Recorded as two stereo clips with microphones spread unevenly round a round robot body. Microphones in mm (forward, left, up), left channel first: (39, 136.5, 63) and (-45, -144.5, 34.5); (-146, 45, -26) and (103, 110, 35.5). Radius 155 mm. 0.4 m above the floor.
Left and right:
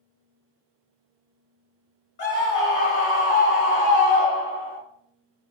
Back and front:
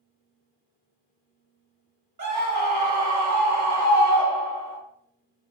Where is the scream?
70° left, 0.9 m.